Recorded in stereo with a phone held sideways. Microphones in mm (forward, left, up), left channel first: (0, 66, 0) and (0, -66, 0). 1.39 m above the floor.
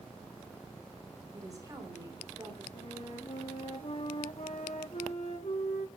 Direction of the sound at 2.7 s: 55° left (ahead or behind).